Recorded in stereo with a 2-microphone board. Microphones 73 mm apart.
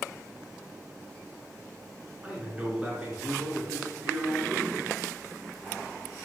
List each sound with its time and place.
2.2 s a man speaking: 15° right (ahead or behind), 4.5 m